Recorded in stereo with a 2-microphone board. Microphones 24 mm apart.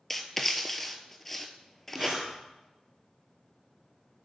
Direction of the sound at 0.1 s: 5° left (ahead or behind).